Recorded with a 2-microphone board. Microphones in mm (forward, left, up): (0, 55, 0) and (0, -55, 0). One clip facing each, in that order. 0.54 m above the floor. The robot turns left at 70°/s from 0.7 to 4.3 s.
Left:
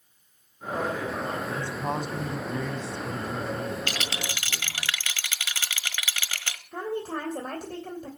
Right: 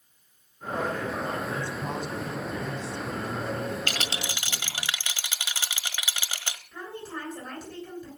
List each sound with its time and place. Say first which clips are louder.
1.5 s a man speaking: left 2 dB; 170° left, 3.5 m; by 4.9 s 25° right, 3.5 m
3.9 s a rattle: even; 130° right, 1.5 m; by 6.6 s 160° right, 1.5 m
6.7 s a woman speaking: left 8 dB; 55° left (ahead or behind), 3 m